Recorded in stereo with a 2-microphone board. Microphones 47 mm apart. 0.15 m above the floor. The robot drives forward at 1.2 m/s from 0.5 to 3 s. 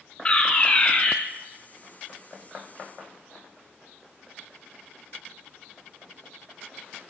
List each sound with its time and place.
0.2 s a fire alarm: 25° left (ahead or behind), 2 m